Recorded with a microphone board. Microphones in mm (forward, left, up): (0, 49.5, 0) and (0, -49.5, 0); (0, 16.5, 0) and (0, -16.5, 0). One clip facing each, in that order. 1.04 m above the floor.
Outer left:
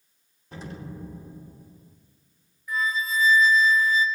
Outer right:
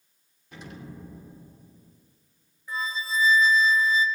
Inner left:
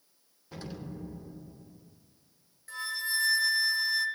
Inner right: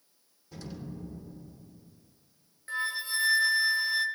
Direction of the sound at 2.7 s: 30° right (ahead or behind).